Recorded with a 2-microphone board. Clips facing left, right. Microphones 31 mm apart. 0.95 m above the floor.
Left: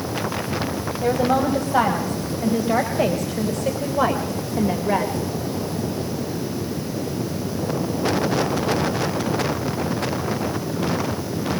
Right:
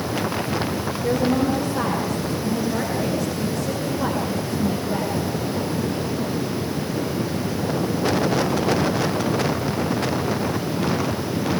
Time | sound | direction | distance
1.0 | a woman speaking | 70° left (ahead or behind) | 4.5 m